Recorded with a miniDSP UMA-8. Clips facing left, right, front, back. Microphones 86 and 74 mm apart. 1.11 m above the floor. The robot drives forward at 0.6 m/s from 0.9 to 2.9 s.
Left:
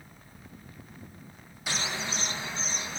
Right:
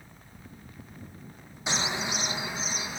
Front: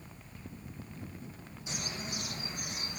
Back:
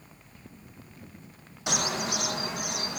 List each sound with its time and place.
1.7 s a bird: 160° right, 0.6 m; by 3.0 s 170° right, 1.3 m